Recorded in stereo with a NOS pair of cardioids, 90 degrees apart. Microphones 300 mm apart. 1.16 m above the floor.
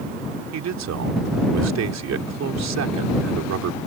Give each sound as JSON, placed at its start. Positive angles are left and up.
{"t": 0.5, "sound": "a man speaking", "azimuth_deg": -60}